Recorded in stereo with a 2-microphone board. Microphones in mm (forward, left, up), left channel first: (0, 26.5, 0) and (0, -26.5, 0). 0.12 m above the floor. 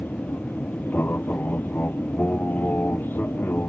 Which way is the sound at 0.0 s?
35° left (ahead or behind).